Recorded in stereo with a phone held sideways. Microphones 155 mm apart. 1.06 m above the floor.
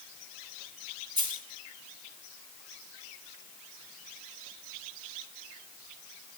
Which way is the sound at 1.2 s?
30° right (ahead or behind).